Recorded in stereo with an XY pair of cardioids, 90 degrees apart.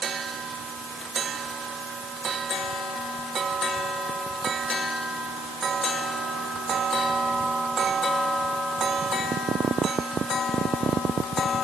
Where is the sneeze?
I don't hear a sneeze.